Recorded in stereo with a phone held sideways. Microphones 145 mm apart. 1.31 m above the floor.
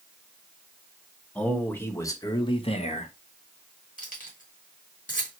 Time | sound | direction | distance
1.4 | a man speaking | 5° left (ahead or behind) | 1.1 m
4.0 | keys jangling | 70° left (ahead or behind) | 1.5 m